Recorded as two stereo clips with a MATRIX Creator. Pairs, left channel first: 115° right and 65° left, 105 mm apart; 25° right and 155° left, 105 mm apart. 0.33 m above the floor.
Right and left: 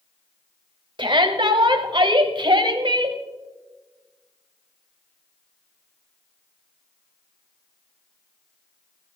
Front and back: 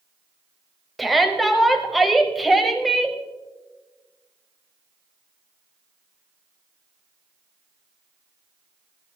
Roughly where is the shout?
Left.